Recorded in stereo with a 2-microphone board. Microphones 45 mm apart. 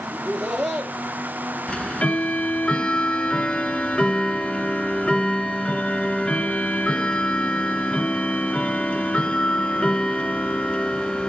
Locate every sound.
0.1 s laughter: 15° right (ahead or behind), 3 m
1.7 s ticking: 25° left (ahead or behind), 0.7 m